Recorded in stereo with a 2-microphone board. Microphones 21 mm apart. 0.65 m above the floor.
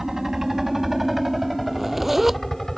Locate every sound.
0.0 s a helicopter: 20° right (ahead or behind); by 2.8 s 15° left (ahead or behind)
1.7 s a zipper: 10° right (ahead or behind)